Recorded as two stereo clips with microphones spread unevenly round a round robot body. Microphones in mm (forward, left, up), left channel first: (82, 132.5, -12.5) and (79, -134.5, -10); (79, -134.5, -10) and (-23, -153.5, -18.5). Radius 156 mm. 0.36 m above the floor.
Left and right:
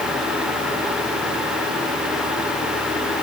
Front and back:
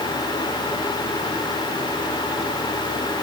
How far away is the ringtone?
I don't hear a ringtone.